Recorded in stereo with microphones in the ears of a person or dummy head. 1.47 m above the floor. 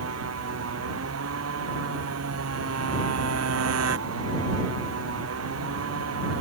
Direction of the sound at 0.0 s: 75° right (ahead or behind).